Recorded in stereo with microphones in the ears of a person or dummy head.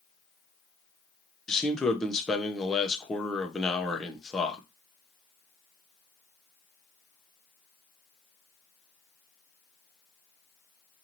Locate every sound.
1.5 s a man speaking: centre (ahead or behind), 0.5 m